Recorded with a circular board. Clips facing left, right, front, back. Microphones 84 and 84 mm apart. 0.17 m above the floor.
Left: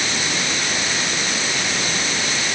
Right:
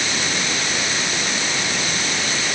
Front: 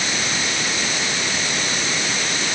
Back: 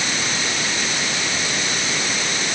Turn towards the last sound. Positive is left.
No sound to turn to.